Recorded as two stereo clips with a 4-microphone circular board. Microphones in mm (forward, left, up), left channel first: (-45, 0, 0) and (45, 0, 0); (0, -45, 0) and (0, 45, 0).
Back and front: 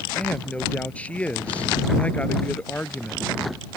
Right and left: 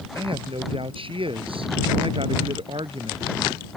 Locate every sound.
0.1 s a man speaking: 105° left